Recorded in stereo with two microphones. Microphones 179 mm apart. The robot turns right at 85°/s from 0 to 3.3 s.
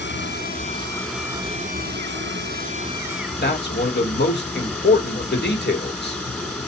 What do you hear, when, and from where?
0.0 s running water: 85° left, 3 m; by 6.7 s 5° left, 3 m
3.4 s a man speaking: 70° left (ahead or behind), 2.5 m